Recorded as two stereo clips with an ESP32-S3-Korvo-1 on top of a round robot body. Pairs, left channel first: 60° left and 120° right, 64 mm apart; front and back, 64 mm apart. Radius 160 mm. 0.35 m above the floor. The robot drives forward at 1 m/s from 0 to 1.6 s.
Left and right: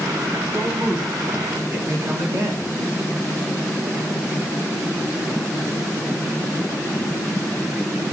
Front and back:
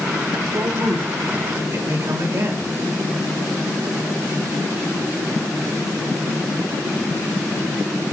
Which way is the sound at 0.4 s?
160° right.